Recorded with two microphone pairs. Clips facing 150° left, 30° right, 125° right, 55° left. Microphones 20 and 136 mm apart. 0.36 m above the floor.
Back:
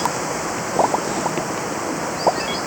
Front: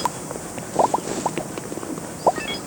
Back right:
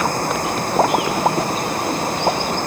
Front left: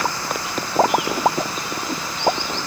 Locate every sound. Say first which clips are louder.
0.0 s running water: back 5 dB, back right 5 dB; 170° right